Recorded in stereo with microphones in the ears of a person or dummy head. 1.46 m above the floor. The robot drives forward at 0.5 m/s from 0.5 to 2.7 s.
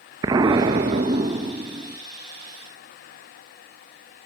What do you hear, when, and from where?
0.2 s an explosion: 15° right (ahead or behind), 0.8 m